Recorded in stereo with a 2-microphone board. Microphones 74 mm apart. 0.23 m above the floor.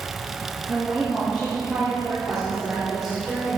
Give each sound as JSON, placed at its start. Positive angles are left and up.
{"t": 0.7, "sound": "a woman speaking", "side_deg": -20, "distance_m": 2.5}